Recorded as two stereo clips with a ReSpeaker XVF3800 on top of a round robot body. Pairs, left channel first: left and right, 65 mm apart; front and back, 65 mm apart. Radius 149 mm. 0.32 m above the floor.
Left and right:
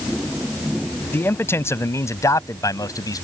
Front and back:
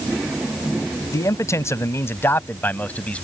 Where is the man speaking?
35° left; by 3.2 s 70° left.